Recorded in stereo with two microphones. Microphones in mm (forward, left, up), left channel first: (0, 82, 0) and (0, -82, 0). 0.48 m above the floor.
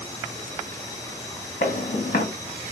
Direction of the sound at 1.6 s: 55° left (ahead or behind).